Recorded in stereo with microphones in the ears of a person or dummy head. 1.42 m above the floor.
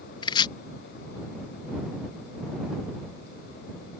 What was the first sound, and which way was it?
Chopping, 20° left (ahead or behind).